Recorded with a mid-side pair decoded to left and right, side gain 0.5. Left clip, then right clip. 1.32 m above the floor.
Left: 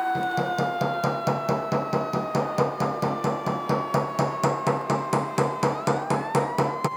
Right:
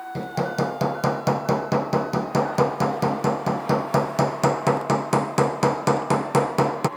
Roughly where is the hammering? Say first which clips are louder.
Left 1 dB; ahead right.